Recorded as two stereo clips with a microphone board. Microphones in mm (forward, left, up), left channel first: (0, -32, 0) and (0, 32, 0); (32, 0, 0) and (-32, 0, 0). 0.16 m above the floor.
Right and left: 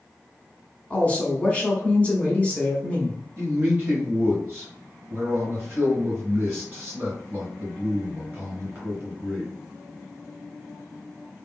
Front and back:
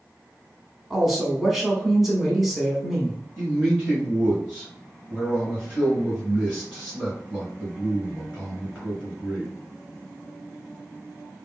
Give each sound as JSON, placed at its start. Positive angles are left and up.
{"t": 0.9, "sound": "a woman speaking", "azimuth_deg": -95, "distance_m": 1.0}
{"t": 3.4, "sound": "a man speaking", "azimuth_deg": 130, "distance_m": 1.7}